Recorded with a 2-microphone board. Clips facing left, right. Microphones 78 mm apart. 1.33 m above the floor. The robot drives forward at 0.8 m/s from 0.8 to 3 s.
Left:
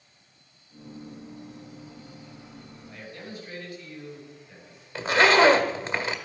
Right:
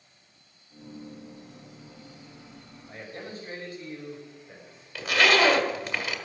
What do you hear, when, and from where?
2.9 s a man speaking: 40° right (ahead or behind), 6 m
5.0 s a zipper: 30° left (ahead or behind), 1.5 m